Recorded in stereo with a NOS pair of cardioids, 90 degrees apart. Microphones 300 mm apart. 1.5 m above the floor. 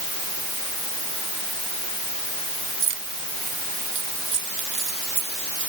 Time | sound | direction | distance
2.8 | keys jangling | 45° right | ?